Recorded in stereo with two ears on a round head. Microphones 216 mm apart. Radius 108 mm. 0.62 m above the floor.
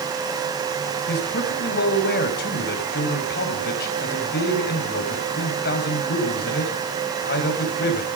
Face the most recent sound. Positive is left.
turn(degrees=45)  # may be behind; listen again after turning